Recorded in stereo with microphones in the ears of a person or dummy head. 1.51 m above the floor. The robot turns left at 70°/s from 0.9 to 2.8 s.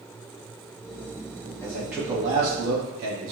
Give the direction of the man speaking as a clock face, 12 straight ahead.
11 o'clock.